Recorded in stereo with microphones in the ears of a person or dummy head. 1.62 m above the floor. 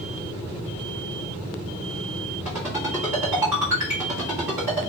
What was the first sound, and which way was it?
A ringtone, 5° right (ahead or behind).